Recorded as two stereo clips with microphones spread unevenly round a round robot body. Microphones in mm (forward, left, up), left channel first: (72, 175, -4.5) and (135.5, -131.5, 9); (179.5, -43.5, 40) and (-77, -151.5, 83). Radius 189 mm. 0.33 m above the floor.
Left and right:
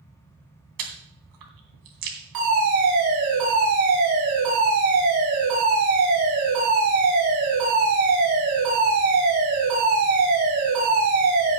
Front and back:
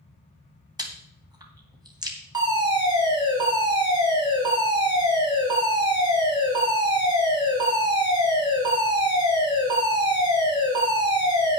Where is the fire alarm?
80° right, 8 m.